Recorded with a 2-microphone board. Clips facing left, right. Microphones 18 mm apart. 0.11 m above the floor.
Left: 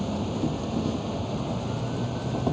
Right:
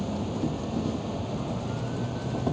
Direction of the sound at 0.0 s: 20° left (ahead or behind).